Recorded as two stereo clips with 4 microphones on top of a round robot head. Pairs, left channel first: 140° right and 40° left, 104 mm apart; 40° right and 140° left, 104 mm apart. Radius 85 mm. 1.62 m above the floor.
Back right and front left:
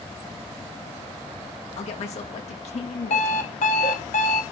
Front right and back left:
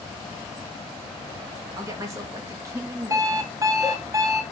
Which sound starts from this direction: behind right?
A woman speaking, at 1.8 s.